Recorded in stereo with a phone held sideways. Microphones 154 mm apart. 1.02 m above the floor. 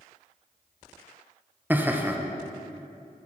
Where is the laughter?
10° right (ahead or behind), 0.6 m.